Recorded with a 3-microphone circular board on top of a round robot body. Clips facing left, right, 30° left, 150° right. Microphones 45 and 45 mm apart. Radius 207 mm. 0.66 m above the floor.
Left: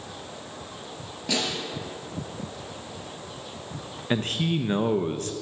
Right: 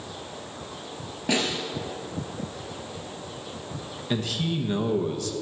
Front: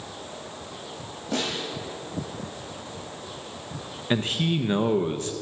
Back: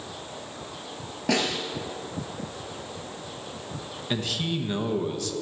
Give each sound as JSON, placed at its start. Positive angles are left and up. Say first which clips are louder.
{"t": 1.3, "sound": "a snare drum", "louder": "right 3 dB, back 3 dB", "azimuth_deg": -160, "distance_m": 4.0}
{"t": 4.1, "sound": "a man speaking", "louder": "left 2 dB, front 4 dB", "azimuth_deg": 70, "distance_m": 1.0}